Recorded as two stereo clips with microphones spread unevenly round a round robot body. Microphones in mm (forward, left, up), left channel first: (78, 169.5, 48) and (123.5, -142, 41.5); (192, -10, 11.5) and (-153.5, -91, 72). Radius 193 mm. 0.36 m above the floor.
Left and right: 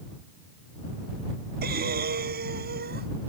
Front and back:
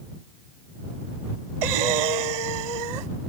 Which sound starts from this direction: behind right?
Breathing, at 1.6 s.